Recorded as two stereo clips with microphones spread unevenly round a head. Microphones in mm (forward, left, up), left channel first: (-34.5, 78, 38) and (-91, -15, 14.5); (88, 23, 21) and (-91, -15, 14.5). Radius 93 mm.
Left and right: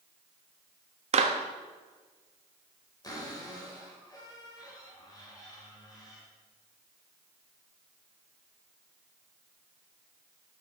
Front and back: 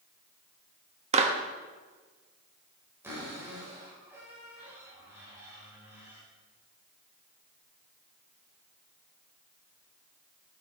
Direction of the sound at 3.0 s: 115° left.